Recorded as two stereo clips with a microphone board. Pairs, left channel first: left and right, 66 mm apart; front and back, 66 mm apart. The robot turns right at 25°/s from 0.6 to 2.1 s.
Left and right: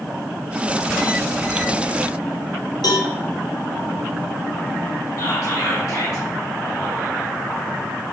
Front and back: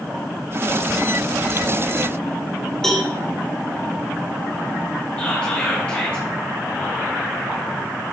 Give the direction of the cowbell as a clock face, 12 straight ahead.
9 o'clock.